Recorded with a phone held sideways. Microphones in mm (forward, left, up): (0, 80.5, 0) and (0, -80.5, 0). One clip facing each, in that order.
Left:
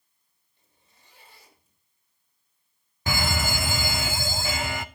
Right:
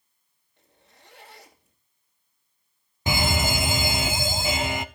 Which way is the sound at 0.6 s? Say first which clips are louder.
Right 8 dB; 75° right (ahead or behind).